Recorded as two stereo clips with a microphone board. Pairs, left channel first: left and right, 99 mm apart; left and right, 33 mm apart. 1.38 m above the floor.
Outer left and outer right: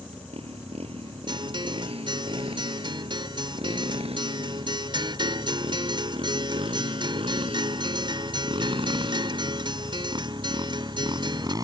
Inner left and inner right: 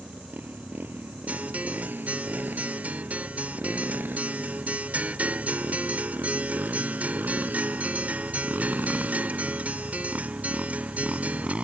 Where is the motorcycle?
80° right; by 11.6 s 40° right (ahead or behind).